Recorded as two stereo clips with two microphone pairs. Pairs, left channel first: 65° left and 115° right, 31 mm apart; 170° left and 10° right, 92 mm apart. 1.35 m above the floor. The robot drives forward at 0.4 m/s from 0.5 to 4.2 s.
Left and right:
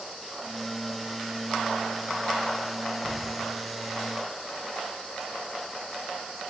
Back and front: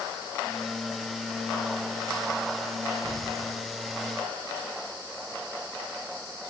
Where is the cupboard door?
120° right, 4.5 m; by 3.4 s 125° right, 4.5 m.